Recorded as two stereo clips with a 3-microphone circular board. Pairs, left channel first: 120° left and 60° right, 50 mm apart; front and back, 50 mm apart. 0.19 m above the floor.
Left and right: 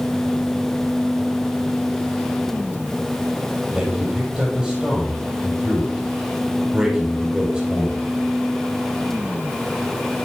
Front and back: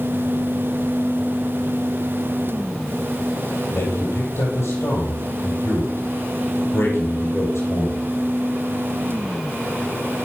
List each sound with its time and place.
3.7 s a man speaking: 5° left, 5 m